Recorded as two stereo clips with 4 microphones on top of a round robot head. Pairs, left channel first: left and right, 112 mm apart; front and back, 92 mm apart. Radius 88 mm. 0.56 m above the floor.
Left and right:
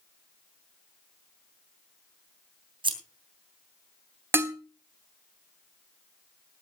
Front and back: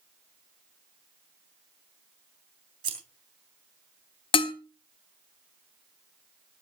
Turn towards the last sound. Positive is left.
turn(degrees=-20)